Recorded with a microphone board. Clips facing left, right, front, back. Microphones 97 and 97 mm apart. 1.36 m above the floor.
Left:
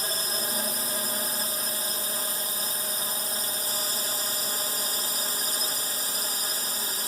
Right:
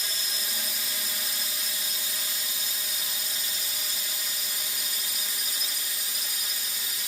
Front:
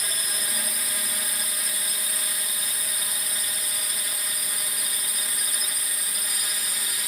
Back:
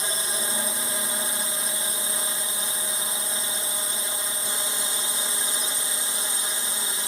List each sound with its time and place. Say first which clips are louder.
0.0 s a drone: left 6 dB, back 4 dB; 125° left